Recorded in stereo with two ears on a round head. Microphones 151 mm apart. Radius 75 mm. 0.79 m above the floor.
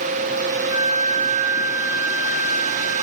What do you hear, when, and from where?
0.7 s a flute: 85° left, 6 m